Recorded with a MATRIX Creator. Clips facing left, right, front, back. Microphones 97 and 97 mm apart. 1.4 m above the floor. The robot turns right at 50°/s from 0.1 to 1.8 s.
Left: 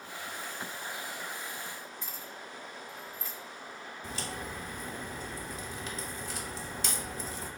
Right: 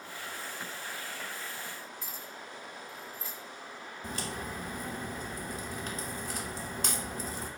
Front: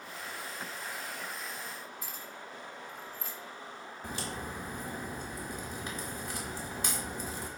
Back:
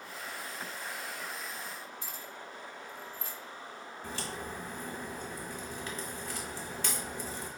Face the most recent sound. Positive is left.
turn(degrees=-70)